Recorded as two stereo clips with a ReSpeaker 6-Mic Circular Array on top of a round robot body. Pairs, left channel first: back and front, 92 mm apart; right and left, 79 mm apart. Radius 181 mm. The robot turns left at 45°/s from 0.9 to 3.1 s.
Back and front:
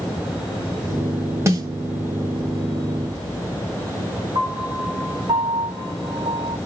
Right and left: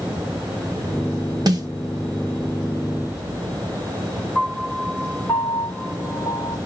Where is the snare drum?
60° left, 1.5 m; by 1.7 s 50° left, 1.5 m.